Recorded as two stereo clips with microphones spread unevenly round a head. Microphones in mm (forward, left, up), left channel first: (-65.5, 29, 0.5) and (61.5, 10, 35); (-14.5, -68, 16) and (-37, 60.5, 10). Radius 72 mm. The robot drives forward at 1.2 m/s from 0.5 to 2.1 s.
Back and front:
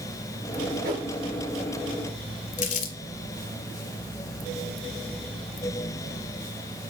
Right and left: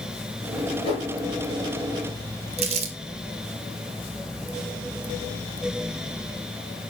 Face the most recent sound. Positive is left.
turn(degrees=140)